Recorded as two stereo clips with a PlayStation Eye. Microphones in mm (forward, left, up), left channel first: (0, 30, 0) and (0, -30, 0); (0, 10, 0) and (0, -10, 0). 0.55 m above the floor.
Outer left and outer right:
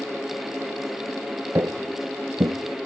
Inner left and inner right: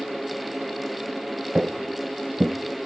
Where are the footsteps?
45° right (ahead or behind), 0.7 m; by 2.5 s 60° right (ahead or behind), 1.0 m.